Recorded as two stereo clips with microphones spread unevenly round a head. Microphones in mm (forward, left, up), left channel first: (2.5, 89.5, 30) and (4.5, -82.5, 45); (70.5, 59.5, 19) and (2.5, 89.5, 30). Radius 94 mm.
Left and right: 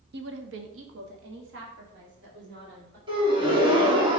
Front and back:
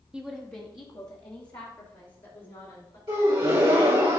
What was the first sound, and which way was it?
A woman speaking, 120° right.